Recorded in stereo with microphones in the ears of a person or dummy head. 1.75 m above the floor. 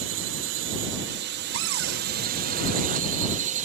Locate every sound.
0.0 s a drone: 65° right (ahead or behind); by 3.6 s 35° right (ahead or behind)
1.5 s a cupboard door: 85° right